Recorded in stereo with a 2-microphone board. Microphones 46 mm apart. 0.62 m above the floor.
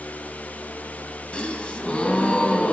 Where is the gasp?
25° left (ahead or behind), 1.7 m.